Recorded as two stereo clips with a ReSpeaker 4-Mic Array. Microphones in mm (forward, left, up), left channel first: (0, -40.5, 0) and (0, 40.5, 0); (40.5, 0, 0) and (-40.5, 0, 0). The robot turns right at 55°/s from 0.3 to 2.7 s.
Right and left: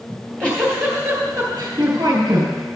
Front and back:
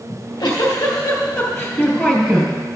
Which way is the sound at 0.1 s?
20° right.